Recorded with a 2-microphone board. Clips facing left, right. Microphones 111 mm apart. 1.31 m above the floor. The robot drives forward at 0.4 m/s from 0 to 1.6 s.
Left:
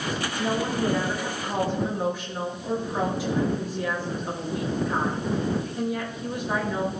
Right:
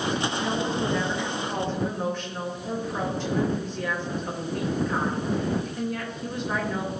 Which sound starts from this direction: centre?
A woman speaking, at 0.4 s.